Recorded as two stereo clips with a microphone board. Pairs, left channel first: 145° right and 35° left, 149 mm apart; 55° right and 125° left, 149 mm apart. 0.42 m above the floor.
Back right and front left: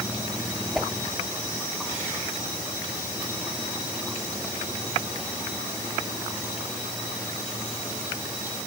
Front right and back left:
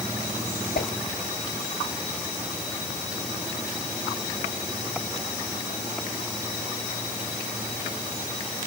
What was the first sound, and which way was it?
A whoosh, 55° right.